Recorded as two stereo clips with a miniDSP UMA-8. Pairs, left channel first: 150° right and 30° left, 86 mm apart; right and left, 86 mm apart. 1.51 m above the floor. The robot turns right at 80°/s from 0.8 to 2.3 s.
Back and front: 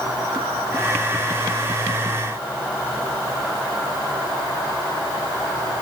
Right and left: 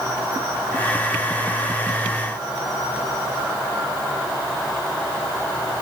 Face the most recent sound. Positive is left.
No sound to turn to.